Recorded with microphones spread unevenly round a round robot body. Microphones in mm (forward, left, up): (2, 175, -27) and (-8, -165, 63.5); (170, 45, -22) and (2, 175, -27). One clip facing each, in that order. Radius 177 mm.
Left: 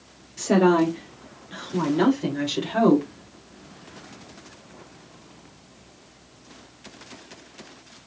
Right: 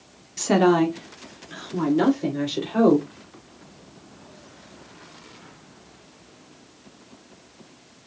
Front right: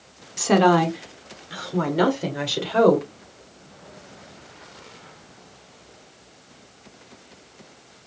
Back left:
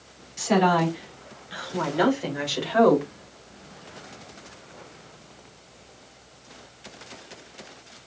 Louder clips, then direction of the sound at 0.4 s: Even, front right 4 dB; 20° right.